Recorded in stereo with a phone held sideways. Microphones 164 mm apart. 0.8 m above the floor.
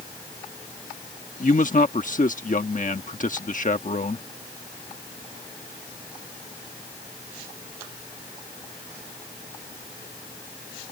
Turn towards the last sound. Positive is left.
turn(degrees=50)  # may be behind; listen again after turning